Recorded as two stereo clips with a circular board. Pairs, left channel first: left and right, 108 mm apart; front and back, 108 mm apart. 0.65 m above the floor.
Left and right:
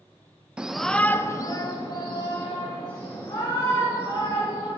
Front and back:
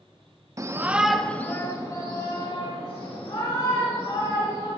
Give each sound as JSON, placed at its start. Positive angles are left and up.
{"t": 0.6, "sound": "a shout", "azimuth_deg": -160, "distance_m": 0.5}